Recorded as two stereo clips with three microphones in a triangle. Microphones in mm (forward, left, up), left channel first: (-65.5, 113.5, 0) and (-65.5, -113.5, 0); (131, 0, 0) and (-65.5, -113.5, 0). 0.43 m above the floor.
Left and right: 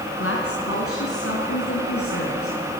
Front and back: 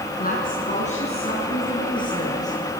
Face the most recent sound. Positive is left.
turn(degrees=105)